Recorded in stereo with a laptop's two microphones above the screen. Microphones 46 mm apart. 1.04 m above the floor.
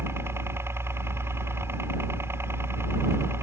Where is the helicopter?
65° right (ahead or behind).